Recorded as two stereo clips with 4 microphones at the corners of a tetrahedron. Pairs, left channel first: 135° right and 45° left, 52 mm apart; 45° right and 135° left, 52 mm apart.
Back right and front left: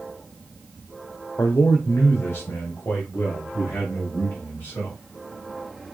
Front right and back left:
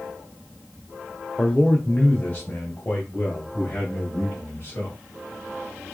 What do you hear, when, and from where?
1.4 s a man speaking: 115° right, 0.7 m; by 5.0 s 85° right, 2.5 m